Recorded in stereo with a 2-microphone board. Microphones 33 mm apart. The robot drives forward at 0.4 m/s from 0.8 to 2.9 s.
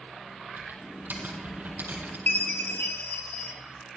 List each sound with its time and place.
0.6 s typing on a keyboard: 65° right (ahead or behind), 4.5 m; by 2.2 s 55° right (ahead or behind), 4.5 m
2.3 s a chime: 65° left (ahead or behind), 2 m; by 3.5 s 60° left (ahead or behind), 2 m